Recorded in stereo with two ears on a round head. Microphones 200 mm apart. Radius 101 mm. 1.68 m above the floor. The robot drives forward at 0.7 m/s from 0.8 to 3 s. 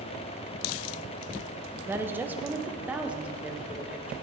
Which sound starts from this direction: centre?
A woman speaking, at 1.9 s.